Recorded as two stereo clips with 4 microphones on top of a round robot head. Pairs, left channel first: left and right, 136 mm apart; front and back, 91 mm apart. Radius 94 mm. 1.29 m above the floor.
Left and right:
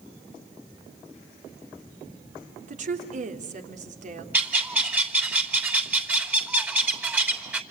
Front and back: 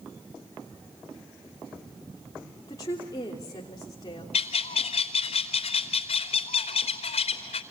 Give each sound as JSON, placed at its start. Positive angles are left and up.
{"t": 2.7, "sound": "a woman speaking", "azimuth_deg": -60, "distance_m": 3.0}
{"t": 4.3, "sound": "a bird", "azimuth_deg": -10, "distance_m": 3.0}